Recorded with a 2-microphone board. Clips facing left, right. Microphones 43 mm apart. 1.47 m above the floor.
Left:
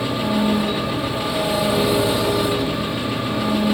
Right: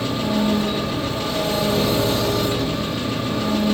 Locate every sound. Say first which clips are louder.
0.0 s an engine running: left 1 dB; 15° left (ahead or behind), 2.5 m